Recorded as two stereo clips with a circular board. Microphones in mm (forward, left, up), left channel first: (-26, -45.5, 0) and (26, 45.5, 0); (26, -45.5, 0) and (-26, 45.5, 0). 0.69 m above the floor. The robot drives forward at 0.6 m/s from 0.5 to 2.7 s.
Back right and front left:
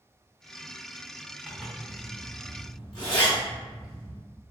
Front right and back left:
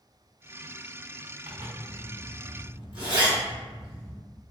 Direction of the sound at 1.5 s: 145° left.